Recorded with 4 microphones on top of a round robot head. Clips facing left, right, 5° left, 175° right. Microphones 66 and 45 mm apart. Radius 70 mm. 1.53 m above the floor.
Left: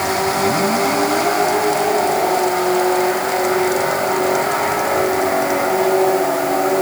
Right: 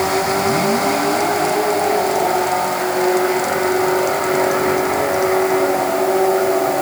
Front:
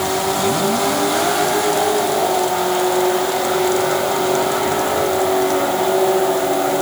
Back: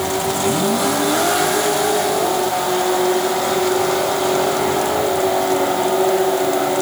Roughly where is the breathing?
I don't hear breathing.